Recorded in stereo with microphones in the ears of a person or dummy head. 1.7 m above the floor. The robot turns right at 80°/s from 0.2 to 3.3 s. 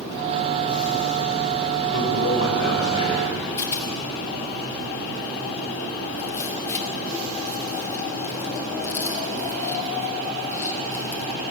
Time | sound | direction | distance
1.9 | a man speaking | 60° left | 6.5 m
3.6 | a rattle | 15° left (ahead or behind) | 2.5 m